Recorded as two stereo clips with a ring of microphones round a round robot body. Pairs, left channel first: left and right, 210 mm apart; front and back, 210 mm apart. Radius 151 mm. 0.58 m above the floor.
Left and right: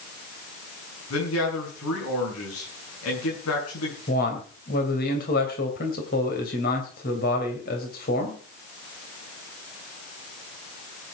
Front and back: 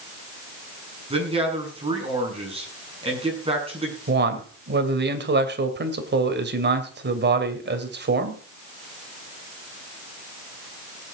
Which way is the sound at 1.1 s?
120° left.